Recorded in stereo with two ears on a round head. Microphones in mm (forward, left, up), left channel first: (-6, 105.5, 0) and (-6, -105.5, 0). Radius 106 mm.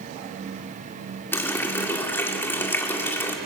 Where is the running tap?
10° left (ahead or behind), 1.9 m.